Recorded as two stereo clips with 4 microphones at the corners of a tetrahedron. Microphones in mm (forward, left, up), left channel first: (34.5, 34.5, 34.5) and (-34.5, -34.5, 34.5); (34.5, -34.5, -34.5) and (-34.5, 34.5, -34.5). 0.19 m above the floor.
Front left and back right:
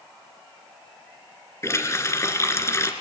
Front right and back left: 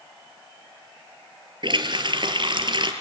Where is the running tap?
105° left, 2.0 m.